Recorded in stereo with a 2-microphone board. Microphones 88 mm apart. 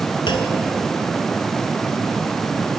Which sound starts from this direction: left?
A clunk, at 0.3 s.